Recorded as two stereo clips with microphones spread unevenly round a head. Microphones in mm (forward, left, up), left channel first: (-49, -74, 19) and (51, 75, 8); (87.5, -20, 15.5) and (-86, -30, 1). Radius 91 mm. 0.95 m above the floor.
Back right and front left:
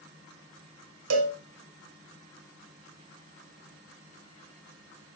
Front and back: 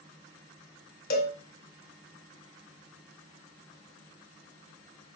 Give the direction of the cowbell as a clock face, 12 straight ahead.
10 o'clock.